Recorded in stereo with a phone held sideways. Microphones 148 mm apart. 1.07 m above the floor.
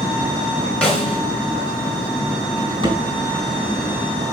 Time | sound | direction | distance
0.8 | a snare drum | 5° left (ahead or behind) | 3 m
2.6 | a drawer | 35° right (ahead or behind) | 3.5 m